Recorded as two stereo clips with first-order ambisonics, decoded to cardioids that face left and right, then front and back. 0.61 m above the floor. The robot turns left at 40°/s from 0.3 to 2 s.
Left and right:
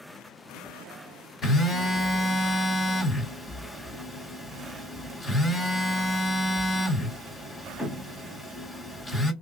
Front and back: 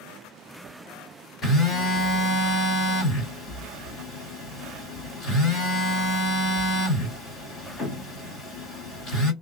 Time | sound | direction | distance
1.4 | a phone buzzing | 25° left | 2 m